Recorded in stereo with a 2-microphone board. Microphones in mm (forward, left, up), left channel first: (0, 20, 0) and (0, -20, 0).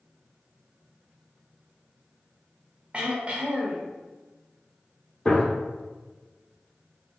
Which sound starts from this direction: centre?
A gunshot, at 5.2 s.